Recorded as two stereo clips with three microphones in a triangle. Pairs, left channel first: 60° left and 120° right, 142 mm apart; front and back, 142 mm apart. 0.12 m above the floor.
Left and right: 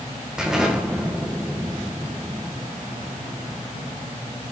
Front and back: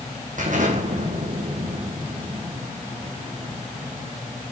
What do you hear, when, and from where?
0.4 s an explosion: 155° left, 1.9 m